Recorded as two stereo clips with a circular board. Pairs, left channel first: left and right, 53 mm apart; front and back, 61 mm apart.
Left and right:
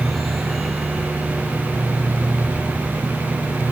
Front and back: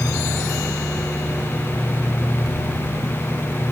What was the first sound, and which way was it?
Only background noise.